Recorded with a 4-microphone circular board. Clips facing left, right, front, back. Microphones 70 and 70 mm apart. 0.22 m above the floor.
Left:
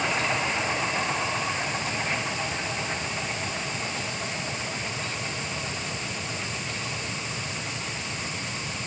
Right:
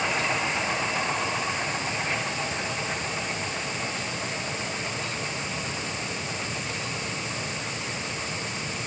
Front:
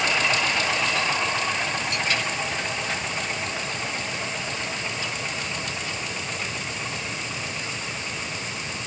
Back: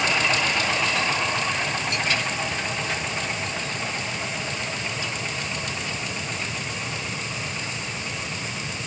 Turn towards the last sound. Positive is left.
No sound to turn to.